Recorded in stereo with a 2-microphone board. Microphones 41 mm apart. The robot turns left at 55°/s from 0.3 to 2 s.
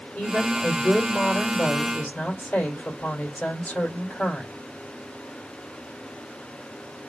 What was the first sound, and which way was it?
A woman speaking, 130° left.